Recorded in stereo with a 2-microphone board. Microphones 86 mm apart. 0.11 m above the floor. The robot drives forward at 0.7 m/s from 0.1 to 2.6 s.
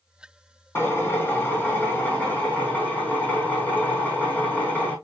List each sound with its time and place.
0.8 s a drill: 25° left (ahead or behind), 3.5 m; by 4.9 s 20° left (ahead or behind), 4.5 m